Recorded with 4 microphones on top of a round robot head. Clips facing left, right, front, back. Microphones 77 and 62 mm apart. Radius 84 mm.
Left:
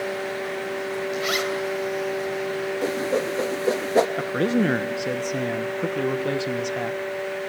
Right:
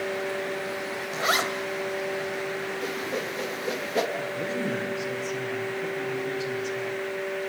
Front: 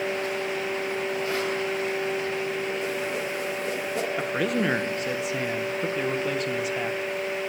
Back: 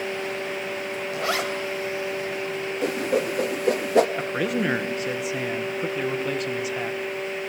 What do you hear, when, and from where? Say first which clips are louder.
1.1 s a zipper: right 3 dB, back 1 dB; 145° right, 2.5 m
2.8 s a whoosh: left 7 dB, back 5 dB; 150° left, 0.9 m
4.2 s a man speaking: left 8 dB, even; 90° left, 1.3 m